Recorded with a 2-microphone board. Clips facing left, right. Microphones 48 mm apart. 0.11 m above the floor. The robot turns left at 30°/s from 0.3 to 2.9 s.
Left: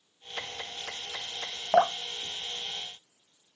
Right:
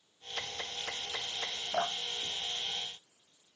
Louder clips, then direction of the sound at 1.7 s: Left 11 dB; 75° left (ahead or behind).